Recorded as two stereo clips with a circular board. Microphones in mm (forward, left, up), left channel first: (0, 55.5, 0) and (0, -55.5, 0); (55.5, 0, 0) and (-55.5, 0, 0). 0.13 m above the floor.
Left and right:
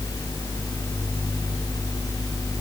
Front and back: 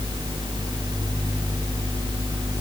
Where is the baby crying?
No baby crying in this recording.